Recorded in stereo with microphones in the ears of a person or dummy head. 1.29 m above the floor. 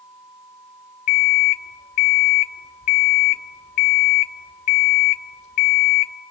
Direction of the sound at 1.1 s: 50° left (ahead or behind).